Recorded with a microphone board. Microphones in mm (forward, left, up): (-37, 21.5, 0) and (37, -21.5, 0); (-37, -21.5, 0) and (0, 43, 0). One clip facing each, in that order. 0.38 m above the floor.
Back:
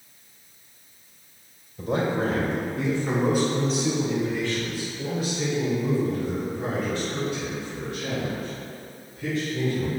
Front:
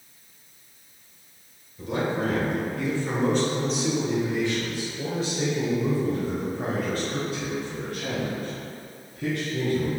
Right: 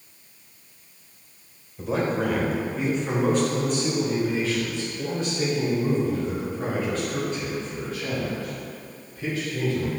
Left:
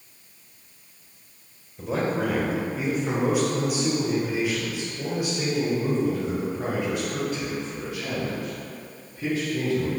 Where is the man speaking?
150° left, 1.7 m; by 9.9 s 15° right, 4 m.